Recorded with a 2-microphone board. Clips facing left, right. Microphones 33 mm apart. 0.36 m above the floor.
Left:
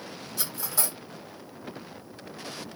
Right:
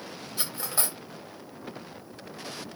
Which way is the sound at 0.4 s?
30° right (ahead or behind).